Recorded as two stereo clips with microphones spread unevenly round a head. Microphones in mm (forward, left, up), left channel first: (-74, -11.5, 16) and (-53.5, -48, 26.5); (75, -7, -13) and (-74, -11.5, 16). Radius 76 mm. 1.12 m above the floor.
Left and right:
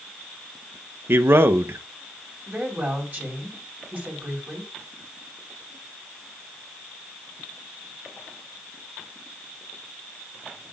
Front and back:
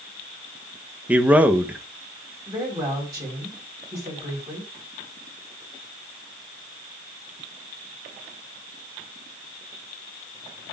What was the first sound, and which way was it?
A man speaking, 95° right.